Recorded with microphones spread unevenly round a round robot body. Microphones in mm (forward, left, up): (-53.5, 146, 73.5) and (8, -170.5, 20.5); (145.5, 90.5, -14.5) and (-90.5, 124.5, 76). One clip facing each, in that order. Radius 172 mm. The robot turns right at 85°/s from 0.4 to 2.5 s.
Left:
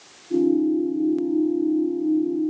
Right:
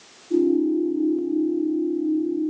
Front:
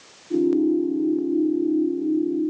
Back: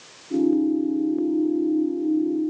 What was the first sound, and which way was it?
Only background noise.